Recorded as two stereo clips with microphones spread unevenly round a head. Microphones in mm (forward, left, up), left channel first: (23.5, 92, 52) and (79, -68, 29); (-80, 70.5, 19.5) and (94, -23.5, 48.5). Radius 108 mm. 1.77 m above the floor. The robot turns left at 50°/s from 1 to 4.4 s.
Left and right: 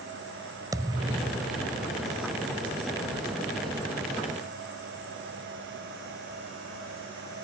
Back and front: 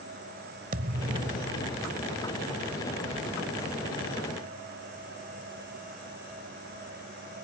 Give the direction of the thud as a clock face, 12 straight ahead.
12 o'clock.